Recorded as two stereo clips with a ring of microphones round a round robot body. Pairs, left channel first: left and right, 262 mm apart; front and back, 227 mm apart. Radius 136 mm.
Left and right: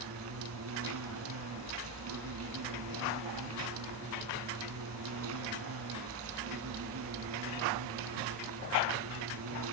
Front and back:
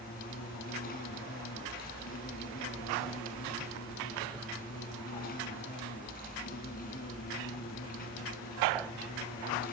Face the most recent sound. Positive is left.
turn(degrees=-55)